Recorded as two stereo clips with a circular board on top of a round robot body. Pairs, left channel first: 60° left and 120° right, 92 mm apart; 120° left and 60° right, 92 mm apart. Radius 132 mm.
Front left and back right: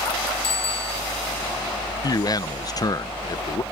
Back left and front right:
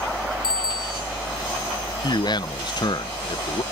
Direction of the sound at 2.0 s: 95° left.